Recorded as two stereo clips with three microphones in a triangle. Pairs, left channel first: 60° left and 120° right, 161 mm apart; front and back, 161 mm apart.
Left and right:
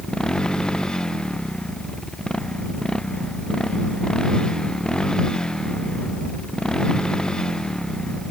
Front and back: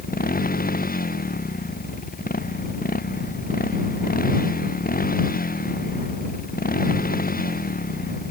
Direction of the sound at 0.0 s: 25° right.